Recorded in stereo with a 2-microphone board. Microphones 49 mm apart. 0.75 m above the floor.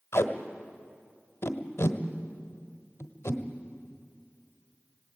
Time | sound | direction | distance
0.1 | tape being pulled | 70° left (ahead or behind) | 1.2 m